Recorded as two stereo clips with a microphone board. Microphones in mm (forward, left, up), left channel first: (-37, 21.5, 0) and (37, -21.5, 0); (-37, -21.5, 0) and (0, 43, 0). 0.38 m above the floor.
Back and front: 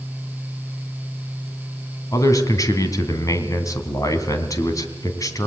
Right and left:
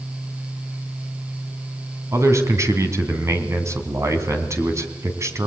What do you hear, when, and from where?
2.1 s a man speaking: 105° left, 3 m